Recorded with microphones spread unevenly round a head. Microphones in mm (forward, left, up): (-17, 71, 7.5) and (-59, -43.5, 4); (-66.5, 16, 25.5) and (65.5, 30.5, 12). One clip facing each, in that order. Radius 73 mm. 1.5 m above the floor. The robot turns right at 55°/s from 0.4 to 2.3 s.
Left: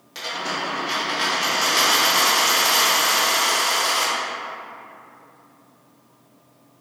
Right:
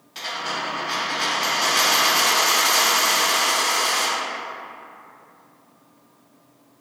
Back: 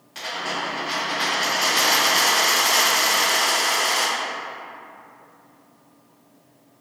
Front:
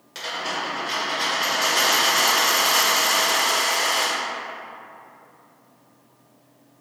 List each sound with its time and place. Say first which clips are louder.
0.1 s a dropped coin: left 1 dB, even; 40° left, 1.6 m; by 4.1 s 145° left, 1.6 m